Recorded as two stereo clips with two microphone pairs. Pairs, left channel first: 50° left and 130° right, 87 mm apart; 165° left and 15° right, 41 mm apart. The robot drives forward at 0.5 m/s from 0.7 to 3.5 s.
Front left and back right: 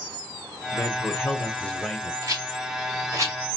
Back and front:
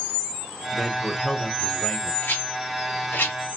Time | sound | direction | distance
0.7 | a man speaking | 55° left | 1.0 m
2.2 | a rattle | 175° right | 2.0 m